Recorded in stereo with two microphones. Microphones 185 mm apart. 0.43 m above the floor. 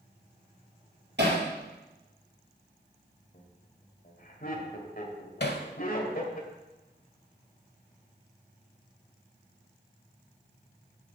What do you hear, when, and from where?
1.2 s hammering: 70° right (ahead or behind), 4 m
3.3 s laughter: 50° left (ahead or behind), 1.9 m
5.4 s hammering: 65° left (ahead or behind), 0.9 m